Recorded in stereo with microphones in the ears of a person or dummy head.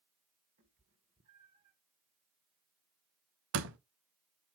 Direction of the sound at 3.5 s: 65° right (ahead or behind).